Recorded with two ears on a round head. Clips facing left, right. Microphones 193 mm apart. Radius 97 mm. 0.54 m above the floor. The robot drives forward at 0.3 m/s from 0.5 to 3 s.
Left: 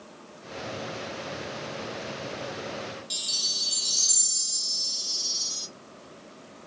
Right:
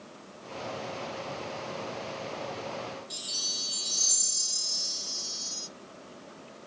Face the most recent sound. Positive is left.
turn(degrees=35)  # may be behind; listen again after turning